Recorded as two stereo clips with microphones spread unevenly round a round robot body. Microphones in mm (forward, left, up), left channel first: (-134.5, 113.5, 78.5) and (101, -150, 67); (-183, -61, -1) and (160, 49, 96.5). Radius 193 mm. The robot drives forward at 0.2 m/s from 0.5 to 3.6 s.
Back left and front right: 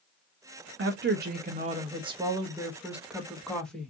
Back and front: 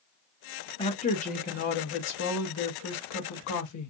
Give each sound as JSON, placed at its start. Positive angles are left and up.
{"t": 0.8, "sound": "a woman speaking", "azimuth_deg": -100, "distance_m": 0.7}